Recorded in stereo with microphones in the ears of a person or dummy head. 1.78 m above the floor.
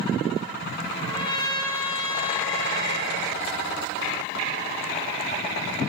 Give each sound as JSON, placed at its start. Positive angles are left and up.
{"t": 0.9, "sound": "a trumpet", "side_deg": 25, "distance_m": 4.5}